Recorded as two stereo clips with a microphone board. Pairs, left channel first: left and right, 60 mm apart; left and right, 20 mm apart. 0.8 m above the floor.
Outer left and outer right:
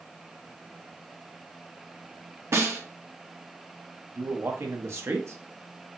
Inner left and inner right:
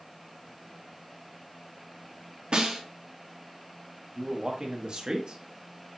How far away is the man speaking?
About 0.9 m.